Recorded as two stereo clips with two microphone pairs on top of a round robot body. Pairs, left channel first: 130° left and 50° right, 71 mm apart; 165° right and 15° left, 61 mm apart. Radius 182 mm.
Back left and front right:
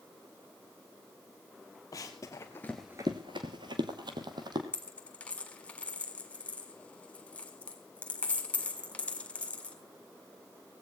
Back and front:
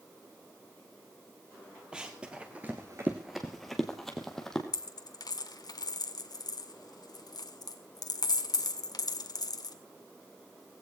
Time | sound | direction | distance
1.9 | running footsteps | 90° left | 1.4 m
4.7 | a dropped coin | 160° right | 1.7 m